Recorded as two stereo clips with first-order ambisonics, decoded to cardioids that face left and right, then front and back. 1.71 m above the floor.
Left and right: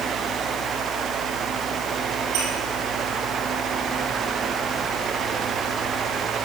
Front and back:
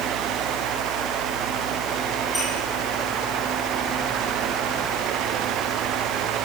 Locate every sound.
2.3 s a squeak: 80° right, 6 m